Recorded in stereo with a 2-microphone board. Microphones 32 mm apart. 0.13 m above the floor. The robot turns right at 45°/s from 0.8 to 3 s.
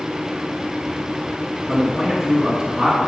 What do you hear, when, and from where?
1.7 s a man speaking: 170° right, 1.9 m; by 3.0 s 110° right, 1.9 m